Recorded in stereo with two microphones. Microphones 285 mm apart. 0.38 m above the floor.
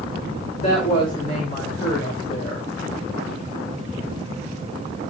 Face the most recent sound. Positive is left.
turn(degrees=30)  # may be behind; listen again after turning